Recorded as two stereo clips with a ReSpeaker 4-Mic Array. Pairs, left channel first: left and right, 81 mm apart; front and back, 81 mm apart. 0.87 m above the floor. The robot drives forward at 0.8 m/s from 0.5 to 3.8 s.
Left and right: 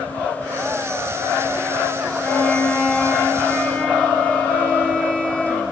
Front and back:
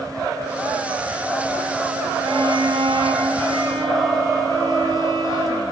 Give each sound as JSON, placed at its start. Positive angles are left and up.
{"t": 2.2, "sound": "a violin", "azimuth_deg": 155, "distance_m": 1.0}